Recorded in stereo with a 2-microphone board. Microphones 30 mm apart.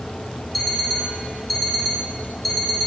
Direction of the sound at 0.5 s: Centre (ahead or behind).